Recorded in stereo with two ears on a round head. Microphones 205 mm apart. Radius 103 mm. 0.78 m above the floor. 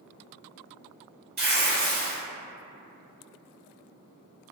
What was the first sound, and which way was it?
Tearing paper, 45° right (ahead or behind).